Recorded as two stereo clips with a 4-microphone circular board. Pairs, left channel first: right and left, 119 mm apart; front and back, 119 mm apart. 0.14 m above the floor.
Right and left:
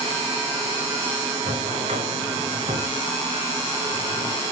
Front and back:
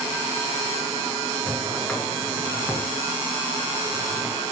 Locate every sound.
1.4 s a drawer: 80° left, 3 m